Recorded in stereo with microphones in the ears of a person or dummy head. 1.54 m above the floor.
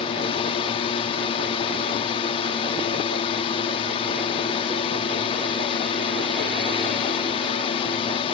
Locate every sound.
0.0 s a drone: 30° left (ahead or behind)